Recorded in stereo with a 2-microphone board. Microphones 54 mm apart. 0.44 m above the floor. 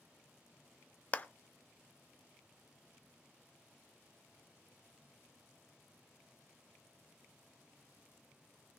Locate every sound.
1.1 s a clap: 30° left (ahead or behind), 0.8 m